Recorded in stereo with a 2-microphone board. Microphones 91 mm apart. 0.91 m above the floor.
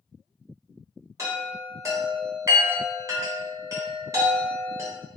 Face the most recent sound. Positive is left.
turn(degrees=-35)  # may be behind; listen again after turning